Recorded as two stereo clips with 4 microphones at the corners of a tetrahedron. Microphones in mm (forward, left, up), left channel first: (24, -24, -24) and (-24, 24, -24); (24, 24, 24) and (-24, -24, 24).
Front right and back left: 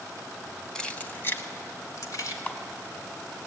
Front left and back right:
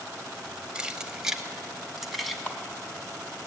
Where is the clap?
5° right, 1.3 m.